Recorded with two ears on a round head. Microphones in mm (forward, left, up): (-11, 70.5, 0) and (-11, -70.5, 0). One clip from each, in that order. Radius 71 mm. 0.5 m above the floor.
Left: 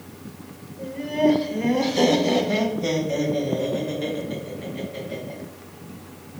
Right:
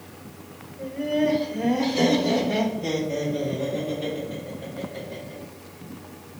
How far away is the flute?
I don't hear a flute.